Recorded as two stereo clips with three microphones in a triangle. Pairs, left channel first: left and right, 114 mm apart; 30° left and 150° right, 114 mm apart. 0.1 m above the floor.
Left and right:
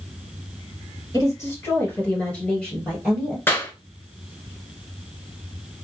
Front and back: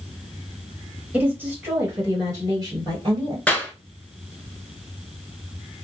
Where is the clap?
80° left, 0.9 m.